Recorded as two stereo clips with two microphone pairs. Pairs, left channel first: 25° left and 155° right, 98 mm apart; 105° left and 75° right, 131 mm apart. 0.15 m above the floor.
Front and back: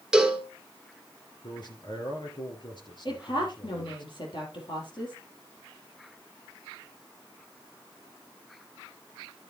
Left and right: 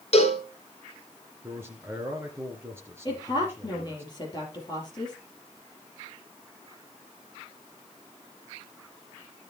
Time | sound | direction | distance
0.1 | a cowbell | 120° left | 1.7 m
1.4 | a man speaking | 5° right | 2.5 m
3.0 | a woman speaking | 50° left | 4 m